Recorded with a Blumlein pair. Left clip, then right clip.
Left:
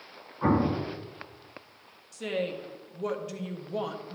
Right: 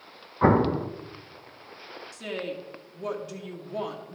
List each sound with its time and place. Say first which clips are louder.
0.4 s an explosion: right 5 dB; 60° right, 0.8 m
2.1 s a woman speaking: left 3 dB; 5° left, 1.6 m